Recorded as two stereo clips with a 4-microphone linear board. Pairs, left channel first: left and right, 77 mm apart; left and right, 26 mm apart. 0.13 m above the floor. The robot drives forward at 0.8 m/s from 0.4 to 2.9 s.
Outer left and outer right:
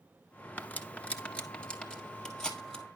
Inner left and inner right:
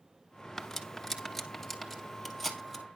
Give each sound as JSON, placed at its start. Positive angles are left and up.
{"t": 0.6, "sound": "cutlery clinking", "side_deg": 20, "distance_m": 0.9}